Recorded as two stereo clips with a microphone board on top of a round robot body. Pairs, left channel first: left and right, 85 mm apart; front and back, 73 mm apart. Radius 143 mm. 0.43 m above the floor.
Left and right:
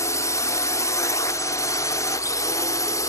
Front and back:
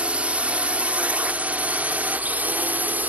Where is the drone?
115° left; by 3.1 s 120° left.